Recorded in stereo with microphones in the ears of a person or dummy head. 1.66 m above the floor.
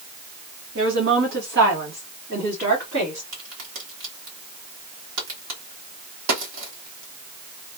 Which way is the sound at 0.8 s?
65° right (ahead or behind).